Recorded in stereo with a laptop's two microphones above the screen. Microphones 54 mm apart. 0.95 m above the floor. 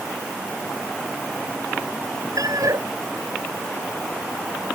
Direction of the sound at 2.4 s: 85° right.